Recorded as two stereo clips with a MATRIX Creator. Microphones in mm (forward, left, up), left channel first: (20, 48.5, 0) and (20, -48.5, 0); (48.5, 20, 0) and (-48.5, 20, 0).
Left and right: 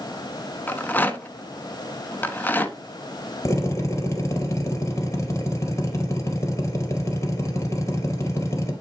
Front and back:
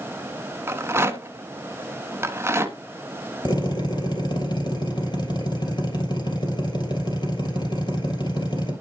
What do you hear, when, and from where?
0.7 s a rattle: 140° left, 0.9 m
3.5 s a drill: 35° left, 3 m